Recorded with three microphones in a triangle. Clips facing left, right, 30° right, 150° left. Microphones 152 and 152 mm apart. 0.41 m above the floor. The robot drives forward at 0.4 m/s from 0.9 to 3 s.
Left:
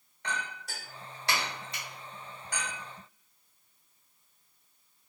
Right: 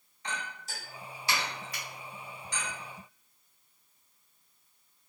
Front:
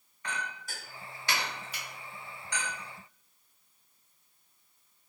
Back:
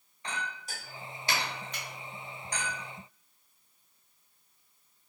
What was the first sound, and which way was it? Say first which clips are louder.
A clink: left 2 dB, back 1 dB; 85° left.